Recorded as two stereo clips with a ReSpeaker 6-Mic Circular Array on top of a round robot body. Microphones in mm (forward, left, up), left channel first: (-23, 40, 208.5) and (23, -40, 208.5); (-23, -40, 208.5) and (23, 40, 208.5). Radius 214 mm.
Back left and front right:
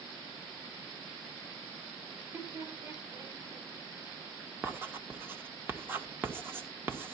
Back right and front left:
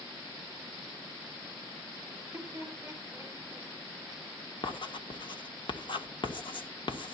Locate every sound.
2.1 s laughter: 5° right, 6.5 m
4.6 s writing: 125° right, 1.7 m